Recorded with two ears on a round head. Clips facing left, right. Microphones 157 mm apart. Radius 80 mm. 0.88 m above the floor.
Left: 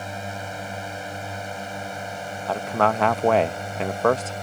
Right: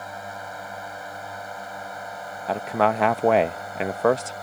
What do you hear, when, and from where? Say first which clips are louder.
0.0 s a drone: left 3 dB; 30° left (ahead or behind)
2.5 s a man speaking: even; 5° right (ahead or behind)